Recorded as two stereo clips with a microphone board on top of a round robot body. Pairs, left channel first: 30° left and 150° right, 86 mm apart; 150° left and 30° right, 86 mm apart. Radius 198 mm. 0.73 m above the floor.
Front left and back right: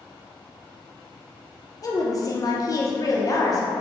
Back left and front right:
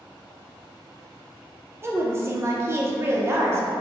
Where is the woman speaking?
15° left, 0.7 m.